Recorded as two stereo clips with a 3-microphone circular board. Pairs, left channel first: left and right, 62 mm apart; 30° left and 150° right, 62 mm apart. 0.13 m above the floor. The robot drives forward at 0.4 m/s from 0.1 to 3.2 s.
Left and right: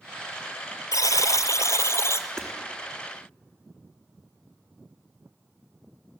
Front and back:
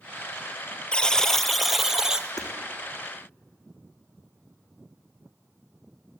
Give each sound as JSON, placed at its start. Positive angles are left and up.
{"t": 0.9, "sound": "a buzzer", "azimuth_deg": 105, "distance_m": 0.9}
{"t": 2.4, "sound": "hammering", "azimuth_deg": 5, "distance_m": 4.0}